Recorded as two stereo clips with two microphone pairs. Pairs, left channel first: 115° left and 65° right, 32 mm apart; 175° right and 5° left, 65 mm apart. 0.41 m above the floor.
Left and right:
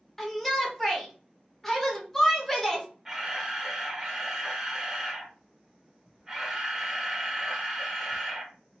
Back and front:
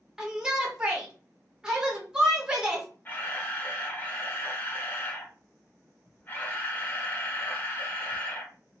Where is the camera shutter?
135° right, 0.8 m.